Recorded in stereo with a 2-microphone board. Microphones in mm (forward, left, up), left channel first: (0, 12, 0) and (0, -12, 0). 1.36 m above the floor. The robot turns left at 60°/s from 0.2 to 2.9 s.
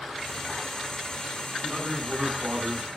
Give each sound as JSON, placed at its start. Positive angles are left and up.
{"t": 1.6, "sound": "a man speaking", "azimuth_deg": 0, "distance_m": 10.0}